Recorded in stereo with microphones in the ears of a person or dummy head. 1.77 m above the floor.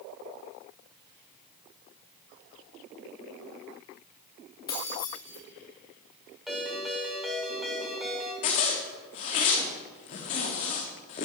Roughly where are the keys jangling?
Left.